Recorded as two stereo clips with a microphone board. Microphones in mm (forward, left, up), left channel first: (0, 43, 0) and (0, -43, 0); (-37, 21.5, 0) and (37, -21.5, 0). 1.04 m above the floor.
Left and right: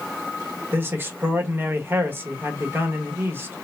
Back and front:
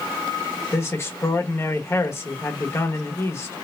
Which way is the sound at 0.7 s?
155° right.